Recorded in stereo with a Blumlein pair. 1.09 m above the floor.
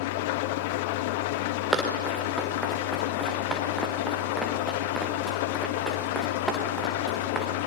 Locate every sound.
0.0 s an engine running: 50° left, 0.7 m
1.7 s running footsteps: 5° right, 5 m